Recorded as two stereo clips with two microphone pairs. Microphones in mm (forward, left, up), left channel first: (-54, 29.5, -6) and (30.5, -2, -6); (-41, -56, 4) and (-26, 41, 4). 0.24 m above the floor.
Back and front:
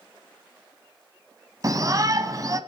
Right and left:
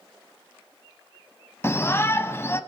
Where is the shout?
45° right, 1.3 m.